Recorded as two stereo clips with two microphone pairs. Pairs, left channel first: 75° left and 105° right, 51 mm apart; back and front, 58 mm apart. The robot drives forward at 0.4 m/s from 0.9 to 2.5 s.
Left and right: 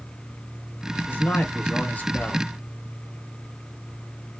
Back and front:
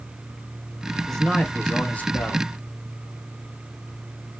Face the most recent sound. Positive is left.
turn(degrees=140)